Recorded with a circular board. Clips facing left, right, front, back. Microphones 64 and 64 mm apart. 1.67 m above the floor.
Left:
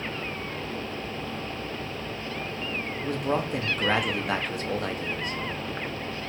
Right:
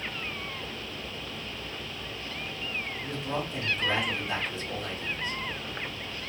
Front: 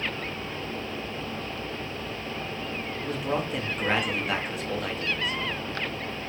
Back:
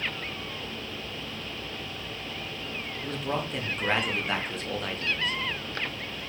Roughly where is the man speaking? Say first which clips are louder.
Left 8 dB, front 2 dB; left.